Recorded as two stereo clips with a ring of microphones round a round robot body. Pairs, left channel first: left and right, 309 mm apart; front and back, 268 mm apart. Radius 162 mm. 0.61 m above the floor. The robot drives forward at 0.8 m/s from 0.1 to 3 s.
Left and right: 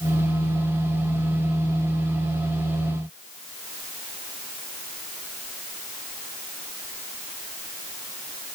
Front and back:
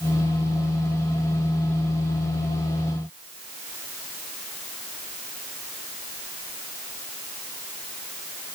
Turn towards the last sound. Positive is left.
No sound to turn to.